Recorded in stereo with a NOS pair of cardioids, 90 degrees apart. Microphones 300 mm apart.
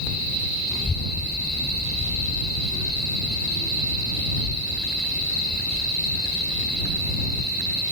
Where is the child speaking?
20° left; by 7.8 s 50° left.